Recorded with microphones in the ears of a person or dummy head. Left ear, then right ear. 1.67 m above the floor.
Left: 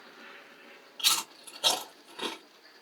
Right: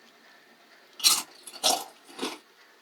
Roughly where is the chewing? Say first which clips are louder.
Right 3 dB; right.